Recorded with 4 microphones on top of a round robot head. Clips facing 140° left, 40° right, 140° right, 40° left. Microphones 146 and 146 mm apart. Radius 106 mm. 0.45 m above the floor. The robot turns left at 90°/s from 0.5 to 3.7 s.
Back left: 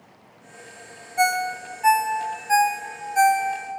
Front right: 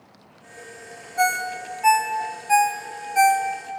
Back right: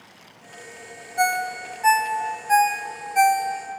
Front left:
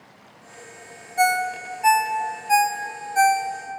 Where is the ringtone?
85° left, 0.6 m; by 3.8 s 140° right, 0.6 m.